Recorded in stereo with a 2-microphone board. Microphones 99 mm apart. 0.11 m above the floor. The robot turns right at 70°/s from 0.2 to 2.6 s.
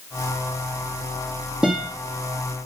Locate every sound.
1.6 s a guitar: 5° right (ahead or behind), 4 m; by 1.9 s 10° left (ahead or behind), 4 m